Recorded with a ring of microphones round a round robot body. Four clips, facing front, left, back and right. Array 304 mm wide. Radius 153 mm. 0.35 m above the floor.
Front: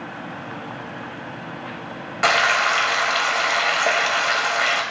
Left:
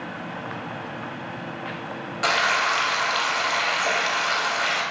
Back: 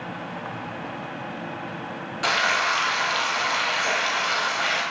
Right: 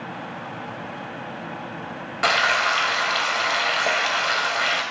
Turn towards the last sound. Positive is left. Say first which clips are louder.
# right 2 dB, front 5 dB
turn(degrees=-25)